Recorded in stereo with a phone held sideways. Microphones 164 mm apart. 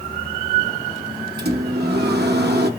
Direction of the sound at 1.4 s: 85° right.